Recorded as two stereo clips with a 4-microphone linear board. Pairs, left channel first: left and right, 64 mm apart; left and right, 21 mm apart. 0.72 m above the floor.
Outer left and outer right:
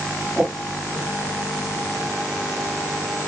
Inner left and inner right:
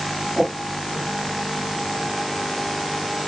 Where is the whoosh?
10° right (ahead or behind), 0.6 m.